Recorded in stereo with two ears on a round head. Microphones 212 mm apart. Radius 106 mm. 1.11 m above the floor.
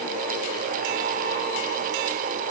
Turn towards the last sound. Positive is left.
No sound to turn to.